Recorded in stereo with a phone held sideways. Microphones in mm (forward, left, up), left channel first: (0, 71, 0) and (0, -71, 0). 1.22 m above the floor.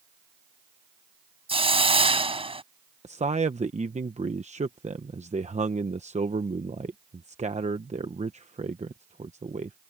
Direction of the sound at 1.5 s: 40° right (ahead or behind).